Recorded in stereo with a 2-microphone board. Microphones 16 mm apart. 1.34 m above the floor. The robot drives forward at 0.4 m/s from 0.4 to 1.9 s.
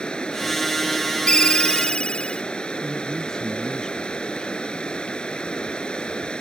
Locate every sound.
0.0 s running water: 75° left (ahead or behind)
1.3 s a ringtone: 80° left; by 2.4 s 75° left (ahead or behind)
2.8 s a man speaking: 25° left (ahead or behind)